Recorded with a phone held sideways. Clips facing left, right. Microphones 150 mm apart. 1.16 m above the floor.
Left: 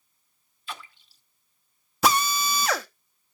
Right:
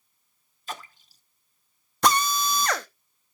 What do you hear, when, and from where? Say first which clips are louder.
0.7 s a splash: right 2 dB; 40° right (ahead or behind), 0.7 m
2.0 s a drill: even; 5° left (ahead or behind), 0.8 m